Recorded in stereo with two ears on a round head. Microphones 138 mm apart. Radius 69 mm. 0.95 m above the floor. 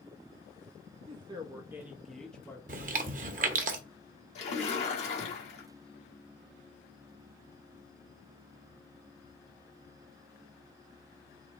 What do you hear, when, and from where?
1.1 s a woman speaking: 40° right (ahead or behind), 0.9 m; by 2.6 s 10° left (ahead or behind), 1.2 m
2.7 s chewing: 55° right (ahead or behind), 0.7 m
4.3 s a splash: 45° left (ahead or behind), 1.5 m